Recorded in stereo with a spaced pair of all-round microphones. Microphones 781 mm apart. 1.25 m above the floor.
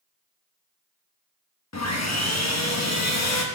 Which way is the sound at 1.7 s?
20° left (ahead or behind).